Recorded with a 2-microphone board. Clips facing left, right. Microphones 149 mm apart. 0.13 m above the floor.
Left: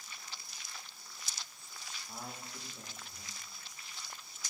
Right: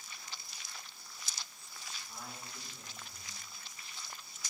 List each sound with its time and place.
2.1 s a man speaking: 40° left (ahead or behind), 6.5 m